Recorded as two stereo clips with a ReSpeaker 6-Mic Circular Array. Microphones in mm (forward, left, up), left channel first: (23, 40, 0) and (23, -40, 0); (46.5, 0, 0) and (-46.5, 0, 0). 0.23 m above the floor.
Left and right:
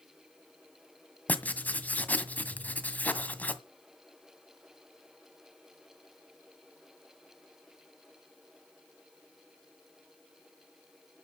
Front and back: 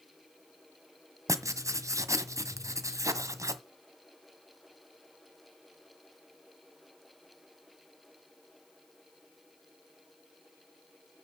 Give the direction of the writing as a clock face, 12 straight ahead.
7 o'clock.